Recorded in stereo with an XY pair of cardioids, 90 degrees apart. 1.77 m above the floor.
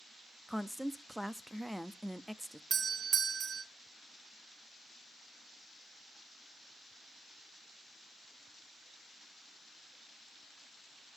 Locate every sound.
0.5 s a woman speaking: straight ahead, 0.7 m
2.7 s a doorbell: 60° right, 0.6 m